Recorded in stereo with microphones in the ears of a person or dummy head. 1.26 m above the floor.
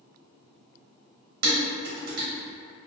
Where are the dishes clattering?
50° right (ahead or behind), 1.0 m.